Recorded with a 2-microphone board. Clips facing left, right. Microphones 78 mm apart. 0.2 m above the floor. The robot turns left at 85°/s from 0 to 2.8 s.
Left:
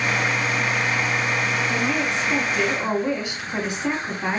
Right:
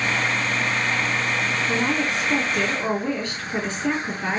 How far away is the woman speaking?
About 1.6 m.